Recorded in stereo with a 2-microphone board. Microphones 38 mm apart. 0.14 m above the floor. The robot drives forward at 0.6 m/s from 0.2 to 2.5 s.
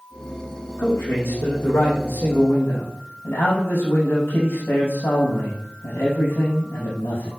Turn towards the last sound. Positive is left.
turn(degrees=70)  # may be behind; listen again after turning